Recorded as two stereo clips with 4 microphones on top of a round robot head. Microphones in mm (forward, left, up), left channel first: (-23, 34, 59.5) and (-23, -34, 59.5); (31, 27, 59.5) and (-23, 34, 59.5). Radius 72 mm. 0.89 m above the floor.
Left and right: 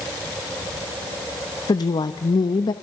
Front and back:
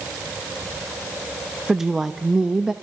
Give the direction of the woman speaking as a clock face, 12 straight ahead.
9 o'clock.